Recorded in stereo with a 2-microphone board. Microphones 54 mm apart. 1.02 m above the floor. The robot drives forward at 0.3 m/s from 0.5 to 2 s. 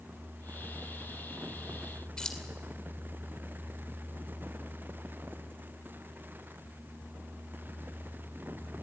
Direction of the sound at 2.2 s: 15° left (ahead or behind).